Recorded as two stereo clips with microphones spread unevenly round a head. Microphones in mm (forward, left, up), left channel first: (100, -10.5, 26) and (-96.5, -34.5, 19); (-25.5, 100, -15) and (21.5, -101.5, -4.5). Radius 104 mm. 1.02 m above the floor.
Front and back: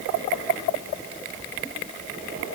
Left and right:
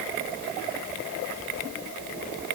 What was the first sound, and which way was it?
Only background noise.